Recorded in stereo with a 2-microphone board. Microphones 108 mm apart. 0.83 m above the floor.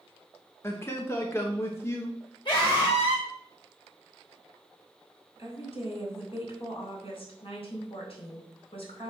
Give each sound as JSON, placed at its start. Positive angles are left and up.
{"t": 0.6, "sound": "a man speaking", "side_deg": 25, "distance_m": 0.9}
{"t": 2.5, "sound": "a scream", "side_deg": 40, "distance_m": 4.5}
{"t": 5.4, "sound": "a woman speaking", "side_deg": 55, "distance_m": 3.5}